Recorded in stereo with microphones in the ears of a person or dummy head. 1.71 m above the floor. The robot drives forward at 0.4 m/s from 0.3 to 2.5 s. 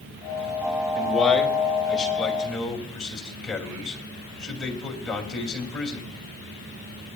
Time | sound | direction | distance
0.9 | a man speaking | 5° left (ahead or behind) | 2 m